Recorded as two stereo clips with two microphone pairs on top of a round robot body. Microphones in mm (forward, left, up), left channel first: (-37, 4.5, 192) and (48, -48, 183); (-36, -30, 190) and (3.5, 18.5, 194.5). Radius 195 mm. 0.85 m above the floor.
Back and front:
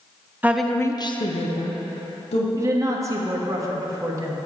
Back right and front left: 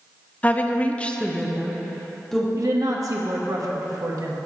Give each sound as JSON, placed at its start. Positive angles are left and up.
{"t": 0.4, "sound": "a woman speaking", "azimuth_deg": -85, "distance_m": 0.8}
{"t": 2.6, "sound": "a woman speaking", "azimuth_deg": 20, "distance_m": 1.2}